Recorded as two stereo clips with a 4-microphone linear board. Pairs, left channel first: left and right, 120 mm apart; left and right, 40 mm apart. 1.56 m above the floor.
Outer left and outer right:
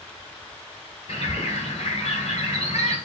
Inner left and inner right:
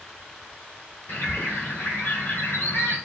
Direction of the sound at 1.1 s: 60° left (ahead or behind).